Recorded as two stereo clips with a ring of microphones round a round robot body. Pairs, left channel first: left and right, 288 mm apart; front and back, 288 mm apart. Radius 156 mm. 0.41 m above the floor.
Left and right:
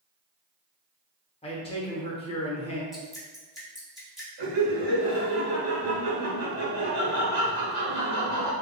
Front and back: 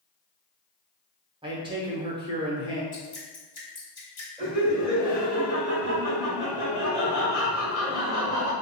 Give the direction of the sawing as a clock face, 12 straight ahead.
No sawing in this recording.